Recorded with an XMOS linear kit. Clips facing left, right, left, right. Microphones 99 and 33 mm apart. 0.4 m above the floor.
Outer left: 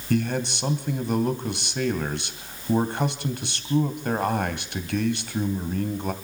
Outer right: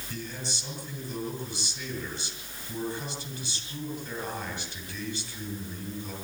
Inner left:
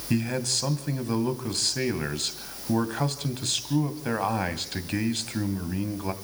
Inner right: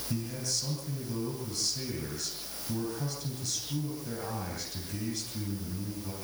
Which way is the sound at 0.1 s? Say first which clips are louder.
Outer left 14 dB, inner left 9 dB; 65° left (ahead or behind).